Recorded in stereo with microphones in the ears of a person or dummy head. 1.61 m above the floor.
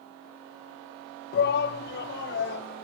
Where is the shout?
60° left (ahead or behind), 0.5 m; by 2.8 s 70° left (ahead or behind), 1.8 m.